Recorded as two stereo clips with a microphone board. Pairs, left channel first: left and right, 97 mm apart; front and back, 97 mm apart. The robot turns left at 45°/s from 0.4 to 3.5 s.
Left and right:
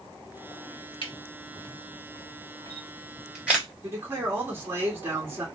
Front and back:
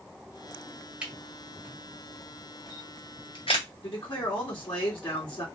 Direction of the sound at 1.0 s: 100° left.